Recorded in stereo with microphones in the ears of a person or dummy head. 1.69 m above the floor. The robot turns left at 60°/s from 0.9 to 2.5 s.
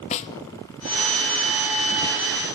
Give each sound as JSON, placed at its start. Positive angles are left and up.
{"t": 0.1, "sound": "a snare drum", "side_deg": 35, "distance_m": 0.6}